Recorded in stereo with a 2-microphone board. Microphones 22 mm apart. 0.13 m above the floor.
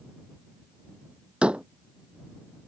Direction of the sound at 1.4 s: 55° right (ahead or behind).